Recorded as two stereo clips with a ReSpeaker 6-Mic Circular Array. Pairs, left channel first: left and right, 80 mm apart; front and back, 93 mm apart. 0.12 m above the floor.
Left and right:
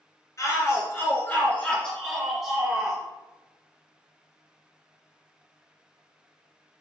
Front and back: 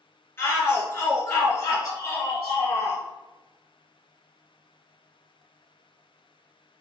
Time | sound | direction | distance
0.4 | a shout | 55° left | 1.9 m